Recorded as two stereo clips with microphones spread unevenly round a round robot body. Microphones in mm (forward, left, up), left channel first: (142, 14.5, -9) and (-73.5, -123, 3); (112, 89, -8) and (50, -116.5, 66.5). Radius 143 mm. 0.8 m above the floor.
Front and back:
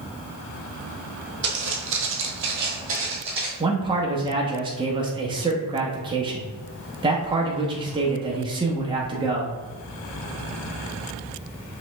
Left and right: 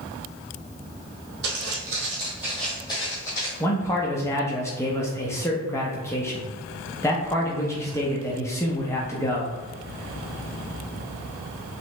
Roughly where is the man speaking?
Behind left.